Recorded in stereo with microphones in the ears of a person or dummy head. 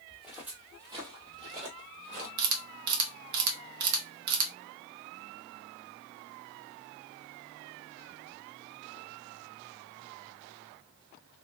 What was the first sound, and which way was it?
Footsteps, centre (ahead or behind).